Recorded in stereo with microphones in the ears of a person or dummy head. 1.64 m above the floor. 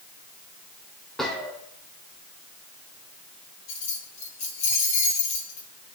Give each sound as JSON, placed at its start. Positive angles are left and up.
{"t": 1.2, "sound": "a gunshot", "side_deg": 0, "distance_m": 1.9}
{"t": 3.7, "sound": "keys jangling", "side_deg": 40, "distance_m": 3.5}